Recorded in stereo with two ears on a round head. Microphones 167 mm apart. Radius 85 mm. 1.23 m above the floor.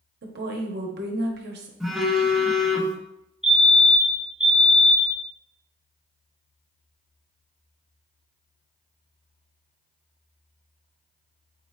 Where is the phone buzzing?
Centre (ahead or behind), 0.7 m.